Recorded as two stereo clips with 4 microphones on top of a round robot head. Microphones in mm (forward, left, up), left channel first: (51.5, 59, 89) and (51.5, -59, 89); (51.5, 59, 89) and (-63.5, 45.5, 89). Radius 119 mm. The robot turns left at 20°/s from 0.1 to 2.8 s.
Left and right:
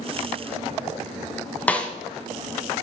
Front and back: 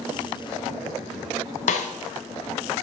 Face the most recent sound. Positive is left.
turn(degrees=-10)